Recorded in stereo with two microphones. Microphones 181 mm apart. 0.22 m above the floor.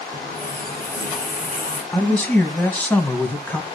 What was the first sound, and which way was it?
A running tap, 50° left (ahead or behind).